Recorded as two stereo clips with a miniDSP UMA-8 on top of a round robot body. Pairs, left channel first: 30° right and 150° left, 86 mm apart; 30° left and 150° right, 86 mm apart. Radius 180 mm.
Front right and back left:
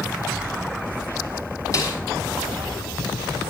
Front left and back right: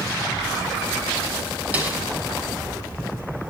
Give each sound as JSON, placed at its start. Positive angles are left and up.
{"t": 1.7, "sound": "a snare drum", "azimuth_deg": -80, "distance_m": 6.0}